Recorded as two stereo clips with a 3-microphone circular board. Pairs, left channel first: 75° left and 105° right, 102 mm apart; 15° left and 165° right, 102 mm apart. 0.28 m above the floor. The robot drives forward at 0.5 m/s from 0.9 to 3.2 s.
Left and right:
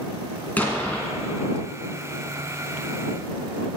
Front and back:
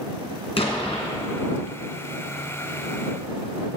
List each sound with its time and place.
0.6 s an explosion: straight ahead, 1.9 m